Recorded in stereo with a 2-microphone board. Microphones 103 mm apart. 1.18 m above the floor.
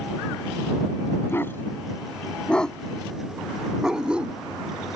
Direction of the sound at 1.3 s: 20° left (ahead or behind).